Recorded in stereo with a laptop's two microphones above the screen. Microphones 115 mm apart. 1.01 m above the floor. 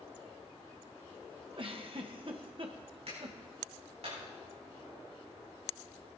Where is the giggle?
50° right (ahead or behind), 1.3 m.